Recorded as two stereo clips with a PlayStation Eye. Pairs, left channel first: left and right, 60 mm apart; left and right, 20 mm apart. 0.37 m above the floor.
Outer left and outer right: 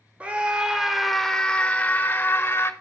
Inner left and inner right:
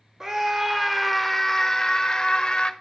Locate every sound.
0.2 s a scream: 25° right (ahead or behind), 1.1 m; by 2.7 s 40° left (ahead or behind), 1.3 m